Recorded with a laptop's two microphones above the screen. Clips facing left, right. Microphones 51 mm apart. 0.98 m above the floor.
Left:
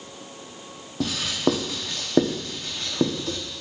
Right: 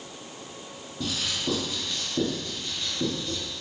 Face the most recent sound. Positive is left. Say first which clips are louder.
# left 7 dB
turn(degrees=80)